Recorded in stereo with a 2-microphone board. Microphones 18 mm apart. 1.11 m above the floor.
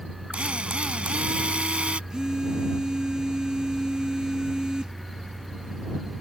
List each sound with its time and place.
0.3 s a drill: 75° right (ahead or behind)
2.1 s a phone buzzing: 45° right (ahead or behind)